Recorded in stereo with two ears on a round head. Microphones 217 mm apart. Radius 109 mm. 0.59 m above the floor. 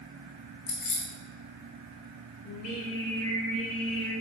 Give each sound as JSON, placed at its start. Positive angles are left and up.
{"t": 0.7, "sound": "keys jangling", "side_deg": 80, "distance_m": 2.0}
{"t": 2.5, "sound": "singing", "side_deg": 60, "distance_m": 2.5}